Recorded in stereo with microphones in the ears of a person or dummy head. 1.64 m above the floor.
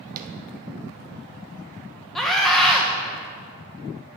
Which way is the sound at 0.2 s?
55° right (ahead or behind).